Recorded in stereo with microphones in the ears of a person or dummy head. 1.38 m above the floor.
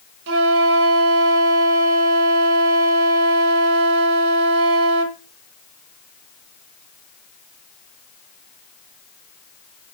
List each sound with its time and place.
0.3 s a flute: 70° right (ahead or behind), 1.1 m